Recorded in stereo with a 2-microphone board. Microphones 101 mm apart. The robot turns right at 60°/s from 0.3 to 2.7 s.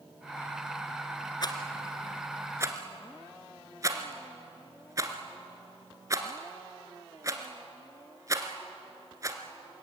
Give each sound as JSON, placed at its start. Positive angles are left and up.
{"t": 1.4, "sound": "a rattle", "side_deg": 45, "distance_m": 1.9}